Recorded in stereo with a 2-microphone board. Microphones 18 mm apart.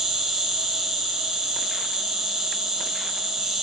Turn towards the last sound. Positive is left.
turn(degrees=-30)  # may be behind; listen again after turning